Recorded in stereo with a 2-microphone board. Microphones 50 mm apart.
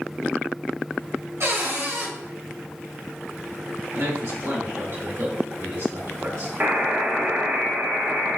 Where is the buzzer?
40° right (ahead or behind), 0.7 m.